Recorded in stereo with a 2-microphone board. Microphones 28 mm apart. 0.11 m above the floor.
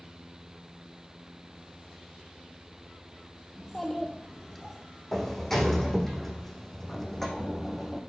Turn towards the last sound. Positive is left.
turn(degrees=10)  # may be behind; listen again after turning